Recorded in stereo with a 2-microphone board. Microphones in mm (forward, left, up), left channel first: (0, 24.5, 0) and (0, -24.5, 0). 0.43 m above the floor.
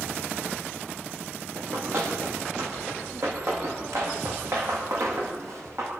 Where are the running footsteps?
60° right (ahead or behind), 8.5 m; by 5.9 s 65° right (ahead or behind), 11.5 m.